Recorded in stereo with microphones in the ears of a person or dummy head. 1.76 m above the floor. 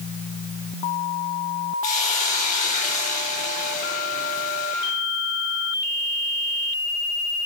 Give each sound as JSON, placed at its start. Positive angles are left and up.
{"t": 1.8, "sound": "a hiss", "side_deg": 40, "distance_m": 4.0}